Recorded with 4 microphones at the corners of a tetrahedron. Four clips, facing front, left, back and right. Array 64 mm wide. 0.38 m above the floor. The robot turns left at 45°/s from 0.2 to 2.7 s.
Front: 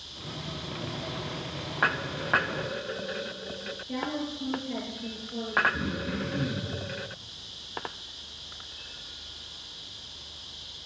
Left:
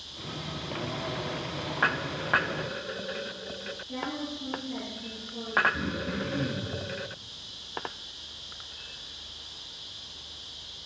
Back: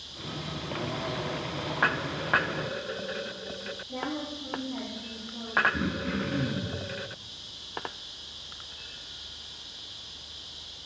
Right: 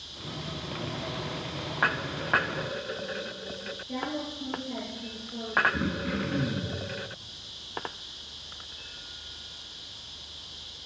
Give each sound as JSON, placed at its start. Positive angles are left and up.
{"t": 3.9, "sound": "a woman speaking", "azimuth_deg": -20, "distance_m": 7.0}
{"t": 5.7, "sound": "throat clearing", "azimuth_deg": -130, "distance_m": 4.0}